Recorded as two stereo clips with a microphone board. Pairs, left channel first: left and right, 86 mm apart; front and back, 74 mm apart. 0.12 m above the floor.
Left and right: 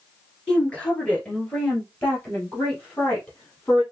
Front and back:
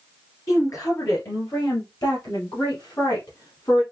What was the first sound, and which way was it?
A woman speaking, 15° left.